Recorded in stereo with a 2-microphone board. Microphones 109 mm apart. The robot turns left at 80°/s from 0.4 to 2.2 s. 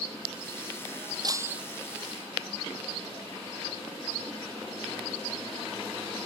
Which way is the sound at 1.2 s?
140° right.